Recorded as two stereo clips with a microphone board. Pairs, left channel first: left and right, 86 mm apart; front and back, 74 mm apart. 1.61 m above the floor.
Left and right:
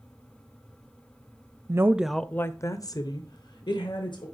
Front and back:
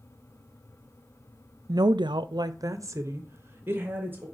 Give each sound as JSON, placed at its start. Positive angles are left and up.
{"t": 1.7, "sound": "a woman speaking", "azimuth_deg": -145, "distance_m": 0.5}